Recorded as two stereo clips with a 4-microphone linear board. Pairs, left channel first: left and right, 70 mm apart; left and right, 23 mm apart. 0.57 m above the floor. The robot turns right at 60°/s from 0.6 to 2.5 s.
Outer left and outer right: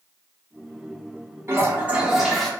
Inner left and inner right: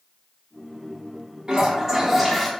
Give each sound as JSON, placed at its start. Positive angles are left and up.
{"t": 1.5, "sound": "a toilet flushing", "azimuth_deg": -50, "distance_m": 0.6}